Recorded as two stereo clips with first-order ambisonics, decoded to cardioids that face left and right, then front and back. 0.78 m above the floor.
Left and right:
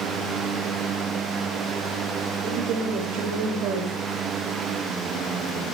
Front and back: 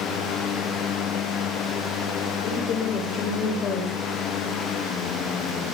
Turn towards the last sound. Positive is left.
turn(degrees=-50)